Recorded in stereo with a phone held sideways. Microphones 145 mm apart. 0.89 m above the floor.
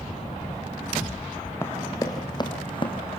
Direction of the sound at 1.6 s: 15° left (ahead or behind).